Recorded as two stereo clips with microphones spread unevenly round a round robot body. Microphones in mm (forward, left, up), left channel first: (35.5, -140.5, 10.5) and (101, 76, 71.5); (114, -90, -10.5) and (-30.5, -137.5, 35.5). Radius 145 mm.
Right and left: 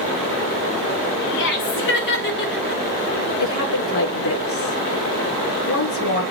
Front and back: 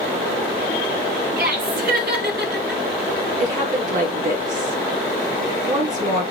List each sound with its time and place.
1.4 s laughter: 140° right, 5.5 m; by 2.8 s 145° right, 6 m
3.4 s a woman speaking: 125° right, 6 m